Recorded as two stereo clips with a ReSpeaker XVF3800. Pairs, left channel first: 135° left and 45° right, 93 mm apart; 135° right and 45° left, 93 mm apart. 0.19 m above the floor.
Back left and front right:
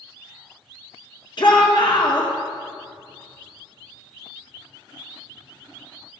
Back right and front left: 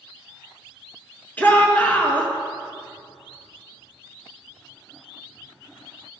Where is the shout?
155° left, 2.5 m.